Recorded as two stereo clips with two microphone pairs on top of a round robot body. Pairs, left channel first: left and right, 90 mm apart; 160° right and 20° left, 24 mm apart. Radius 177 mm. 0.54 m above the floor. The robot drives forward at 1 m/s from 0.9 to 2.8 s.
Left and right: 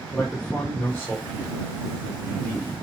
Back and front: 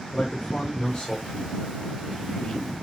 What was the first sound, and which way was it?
A man speaking, 160° left.